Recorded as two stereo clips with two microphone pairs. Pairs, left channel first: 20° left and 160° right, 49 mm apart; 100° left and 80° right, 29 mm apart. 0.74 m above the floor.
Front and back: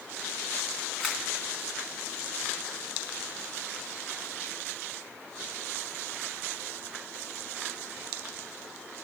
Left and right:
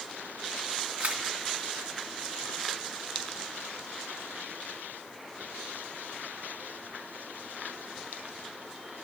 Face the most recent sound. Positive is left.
turn(degrees=-75)